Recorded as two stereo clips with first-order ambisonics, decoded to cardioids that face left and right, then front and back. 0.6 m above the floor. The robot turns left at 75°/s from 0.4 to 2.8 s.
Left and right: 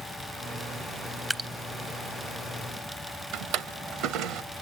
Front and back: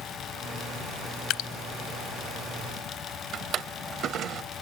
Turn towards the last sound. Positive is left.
turn(degrees=-125)